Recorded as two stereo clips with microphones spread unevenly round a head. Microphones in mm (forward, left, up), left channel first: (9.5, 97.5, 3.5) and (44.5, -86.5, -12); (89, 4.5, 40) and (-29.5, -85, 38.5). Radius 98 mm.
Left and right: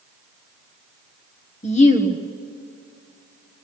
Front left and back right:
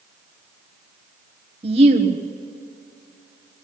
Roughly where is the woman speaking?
Behind.